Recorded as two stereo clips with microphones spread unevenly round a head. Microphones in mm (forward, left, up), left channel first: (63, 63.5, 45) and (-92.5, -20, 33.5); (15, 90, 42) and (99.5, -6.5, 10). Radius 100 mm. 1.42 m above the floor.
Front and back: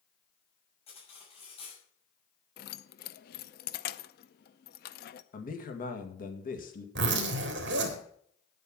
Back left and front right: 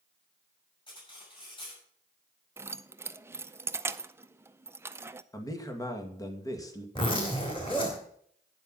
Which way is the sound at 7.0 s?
170° right.